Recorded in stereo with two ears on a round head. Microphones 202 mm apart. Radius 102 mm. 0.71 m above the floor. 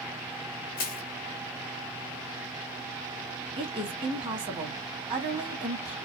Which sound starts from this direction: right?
A woman speaking, at 3.6 s.